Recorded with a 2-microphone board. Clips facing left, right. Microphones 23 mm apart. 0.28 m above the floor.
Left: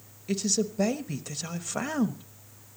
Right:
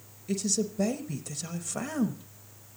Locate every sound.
0.3 s a man speaking: 20° left (ahead or behind), 0.9 m